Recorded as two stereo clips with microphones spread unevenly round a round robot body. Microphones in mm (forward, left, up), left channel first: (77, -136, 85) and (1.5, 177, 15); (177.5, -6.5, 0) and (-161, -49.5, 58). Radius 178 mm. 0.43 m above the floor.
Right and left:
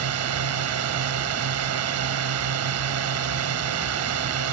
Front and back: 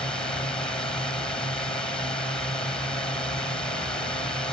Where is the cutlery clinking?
No cutlery clinking in this recording.